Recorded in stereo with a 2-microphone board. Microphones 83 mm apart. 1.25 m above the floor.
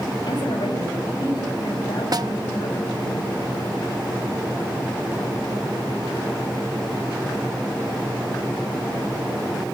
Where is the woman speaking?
60° left (ahead or behind), 6.5 m.